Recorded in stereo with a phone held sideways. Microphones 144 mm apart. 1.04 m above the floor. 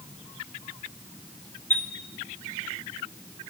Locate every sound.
1.7 s a chime: 15° left (ahead or behind), 1.0 m